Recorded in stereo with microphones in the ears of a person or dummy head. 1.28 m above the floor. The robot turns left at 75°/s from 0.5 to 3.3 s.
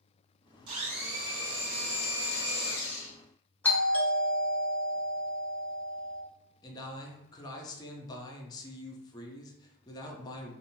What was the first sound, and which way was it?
A blender, 130° right.